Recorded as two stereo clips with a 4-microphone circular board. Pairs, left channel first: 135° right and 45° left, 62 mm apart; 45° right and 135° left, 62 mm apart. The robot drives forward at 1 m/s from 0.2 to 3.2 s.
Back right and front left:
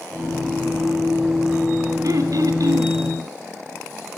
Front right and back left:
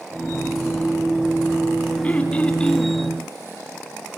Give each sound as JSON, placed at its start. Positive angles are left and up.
{"t": 2.0, "sound": "throat clearing", "azimuth_deg": 25, "distance_m": 2.5}